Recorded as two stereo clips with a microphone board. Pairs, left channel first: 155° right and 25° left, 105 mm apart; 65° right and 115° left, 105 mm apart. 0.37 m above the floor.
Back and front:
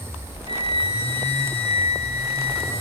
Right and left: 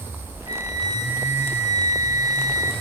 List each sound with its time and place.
0.5 s a flute: 60° left, 4.5 m